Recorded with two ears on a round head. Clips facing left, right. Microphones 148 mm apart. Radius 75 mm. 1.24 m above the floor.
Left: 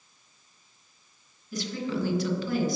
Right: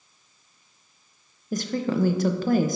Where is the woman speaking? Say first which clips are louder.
Right 5 dB; 40° right (ahead or behind), 0.7 m.